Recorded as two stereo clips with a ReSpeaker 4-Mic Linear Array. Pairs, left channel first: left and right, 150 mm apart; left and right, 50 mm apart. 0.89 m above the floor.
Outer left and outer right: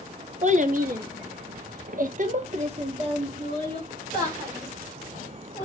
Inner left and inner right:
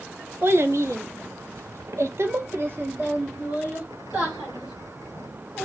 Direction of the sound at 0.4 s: 50° right (ahead or behind).